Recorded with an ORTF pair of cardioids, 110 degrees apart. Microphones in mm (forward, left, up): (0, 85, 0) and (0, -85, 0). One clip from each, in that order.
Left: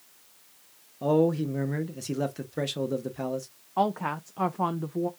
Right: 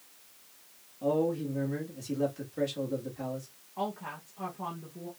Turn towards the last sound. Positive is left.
turn(degrees=60)